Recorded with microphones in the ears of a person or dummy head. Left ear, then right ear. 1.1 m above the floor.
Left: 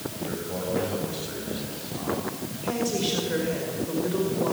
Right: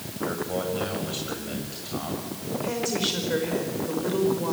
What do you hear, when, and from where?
0.2 s a man speaking: 35° right (ahead or behind), 6.5 m
2.6 s a woman speaking: 15° right (ahead or behind), 4.5 m